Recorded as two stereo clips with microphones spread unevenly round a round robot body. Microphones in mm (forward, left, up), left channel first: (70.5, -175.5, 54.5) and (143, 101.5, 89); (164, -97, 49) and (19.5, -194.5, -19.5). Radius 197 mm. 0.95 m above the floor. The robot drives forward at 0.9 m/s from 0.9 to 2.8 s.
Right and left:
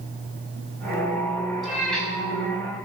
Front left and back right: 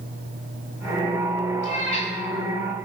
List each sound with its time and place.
1.6 s a cat meowing: 15° right, 5 m